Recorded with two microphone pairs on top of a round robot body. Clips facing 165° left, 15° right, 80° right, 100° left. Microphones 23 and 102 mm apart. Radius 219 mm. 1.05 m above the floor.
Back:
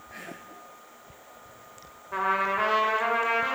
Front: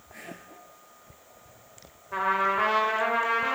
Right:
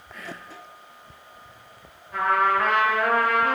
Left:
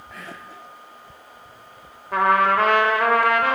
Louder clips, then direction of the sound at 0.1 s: Back 1 dB, right 1 dB; 110° left.